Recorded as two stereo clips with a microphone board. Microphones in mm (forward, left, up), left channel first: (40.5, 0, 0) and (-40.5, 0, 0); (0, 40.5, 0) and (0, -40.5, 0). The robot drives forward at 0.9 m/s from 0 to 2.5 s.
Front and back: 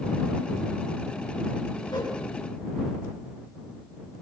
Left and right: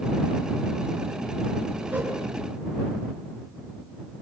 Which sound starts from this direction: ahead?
A whoosh, at 1.9 s.